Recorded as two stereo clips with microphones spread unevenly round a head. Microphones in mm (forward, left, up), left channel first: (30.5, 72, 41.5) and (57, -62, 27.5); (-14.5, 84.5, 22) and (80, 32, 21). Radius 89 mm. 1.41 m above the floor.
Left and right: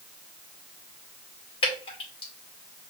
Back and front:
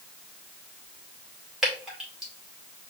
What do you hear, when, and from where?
1.6 s dripping: 55° left, 2.5 m